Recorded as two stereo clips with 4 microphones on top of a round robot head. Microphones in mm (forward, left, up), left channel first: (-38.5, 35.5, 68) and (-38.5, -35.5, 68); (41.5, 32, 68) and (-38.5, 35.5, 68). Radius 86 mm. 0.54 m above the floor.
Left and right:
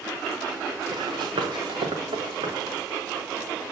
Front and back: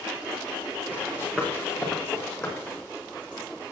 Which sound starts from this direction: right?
Running footsteps, at 0.9 s.